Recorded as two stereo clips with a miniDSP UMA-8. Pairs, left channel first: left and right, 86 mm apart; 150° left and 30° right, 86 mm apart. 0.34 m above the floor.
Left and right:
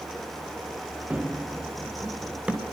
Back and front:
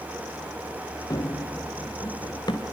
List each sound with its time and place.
1.1 s running footsteps: 165° right, 2.5 m; by 2.6 s 170° right, 4.5 m